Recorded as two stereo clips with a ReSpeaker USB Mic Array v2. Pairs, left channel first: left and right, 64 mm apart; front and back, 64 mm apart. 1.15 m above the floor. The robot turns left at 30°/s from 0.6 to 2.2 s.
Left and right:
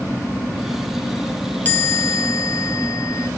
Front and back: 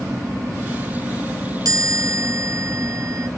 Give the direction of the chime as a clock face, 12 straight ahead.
7 o'clock.